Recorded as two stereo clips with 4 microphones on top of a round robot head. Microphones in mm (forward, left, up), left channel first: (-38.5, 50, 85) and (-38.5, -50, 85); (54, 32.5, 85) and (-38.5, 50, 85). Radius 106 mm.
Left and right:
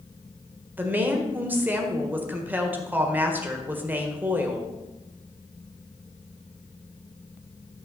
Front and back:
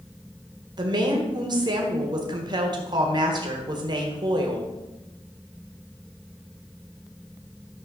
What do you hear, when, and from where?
0.8 s a woman speaking: 160° right, 1.8 m